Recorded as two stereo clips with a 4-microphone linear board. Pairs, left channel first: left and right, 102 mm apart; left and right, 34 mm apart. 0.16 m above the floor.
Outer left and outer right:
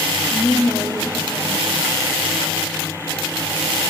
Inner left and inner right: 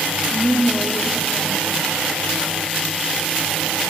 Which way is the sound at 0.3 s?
20° right (ahead or behind).